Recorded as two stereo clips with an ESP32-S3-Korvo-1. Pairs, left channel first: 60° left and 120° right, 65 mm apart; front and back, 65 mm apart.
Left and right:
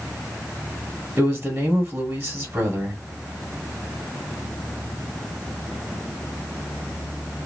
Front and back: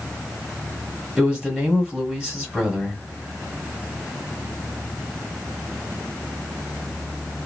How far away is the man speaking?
About 1.4 m.